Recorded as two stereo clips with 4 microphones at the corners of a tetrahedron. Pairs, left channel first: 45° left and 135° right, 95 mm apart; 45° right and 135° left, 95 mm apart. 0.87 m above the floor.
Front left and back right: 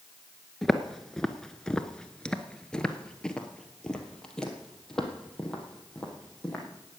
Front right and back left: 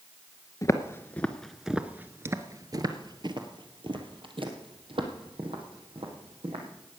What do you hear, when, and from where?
0.6 s footsteps: 40° right, 0.9 m; by 6.6 s 130° left, 3 m